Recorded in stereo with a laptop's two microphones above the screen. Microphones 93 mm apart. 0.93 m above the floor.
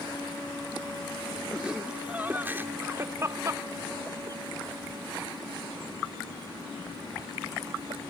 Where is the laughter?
10° right (ahead or behind); by 8.0 s 70° right (ahead or behind).